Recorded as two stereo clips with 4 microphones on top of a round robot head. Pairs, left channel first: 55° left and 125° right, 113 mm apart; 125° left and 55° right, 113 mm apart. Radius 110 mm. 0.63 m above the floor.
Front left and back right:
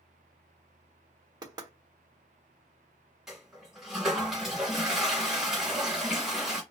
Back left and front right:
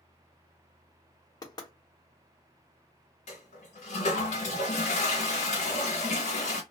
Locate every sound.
1.4 s knocking: straight behind, 0.8 m
3.3 s a toilet flushing: 145° left, 0.7 m